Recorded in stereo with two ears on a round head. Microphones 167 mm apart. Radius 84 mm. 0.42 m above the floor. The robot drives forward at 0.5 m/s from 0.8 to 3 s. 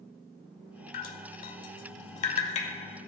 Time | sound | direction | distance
0.9 | dripping | 50° left (ahead or behind) | 0.8 m